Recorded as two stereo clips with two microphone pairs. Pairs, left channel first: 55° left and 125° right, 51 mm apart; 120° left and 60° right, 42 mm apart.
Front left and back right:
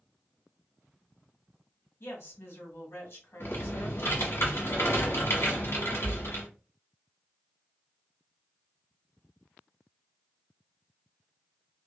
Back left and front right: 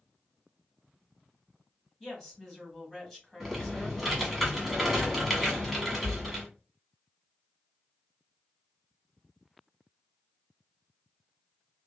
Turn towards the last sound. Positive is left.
turn(degrees=30)